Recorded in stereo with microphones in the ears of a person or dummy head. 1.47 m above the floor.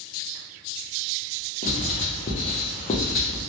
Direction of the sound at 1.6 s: 35° left (ahead or behind).